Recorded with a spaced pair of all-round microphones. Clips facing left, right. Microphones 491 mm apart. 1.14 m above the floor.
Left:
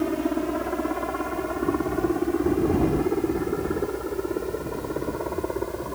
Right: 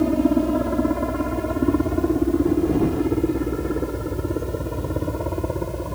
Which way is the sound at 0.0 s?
60° right (ahead or behind).